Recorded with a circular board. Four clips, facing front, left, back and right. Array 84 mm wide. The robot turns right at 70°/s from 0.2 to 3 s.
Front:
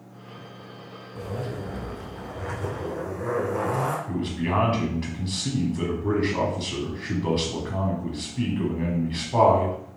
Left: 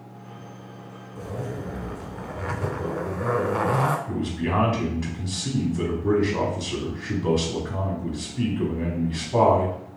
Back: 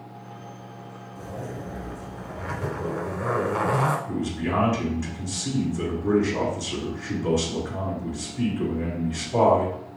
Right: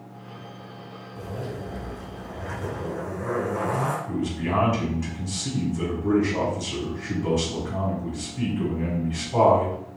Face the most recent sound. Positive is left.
turn(degrees=20)